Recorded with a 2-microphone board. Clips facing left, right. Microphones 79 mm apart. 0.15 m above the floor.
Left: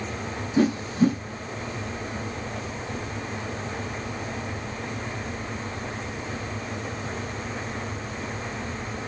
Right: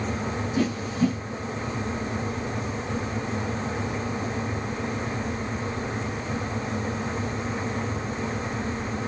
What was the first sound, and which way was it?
A whoosh, 40° left (ahead or behind).